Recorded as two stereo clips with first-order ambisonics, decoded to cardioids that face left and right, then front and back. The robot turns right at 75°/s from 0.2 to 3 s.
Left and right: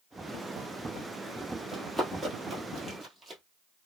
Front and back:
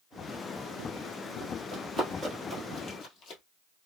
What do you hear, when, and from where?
1.7 s running footsteps: 165° left, 1.3 m; by 3.4 s 30° right, 1.5 m